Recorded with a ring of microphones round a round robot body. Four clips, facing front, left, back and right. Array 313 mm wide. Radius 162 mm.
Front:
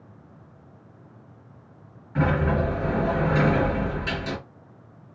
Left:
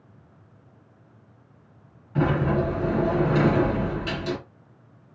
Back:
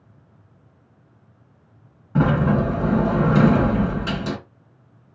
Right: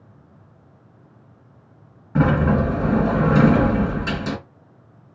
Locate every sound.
2.1 s a sliding door: 140° right, 3 m